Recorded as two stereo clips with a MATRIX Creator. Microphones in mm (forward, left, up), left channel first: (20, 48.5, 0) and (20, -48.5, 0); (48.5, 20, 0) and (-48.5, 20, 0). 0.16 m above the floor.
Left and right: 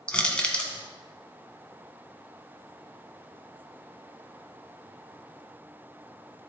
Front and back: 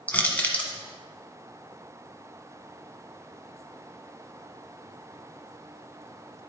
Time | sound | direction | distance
0.1 | crushing | 35° left | 1.3 m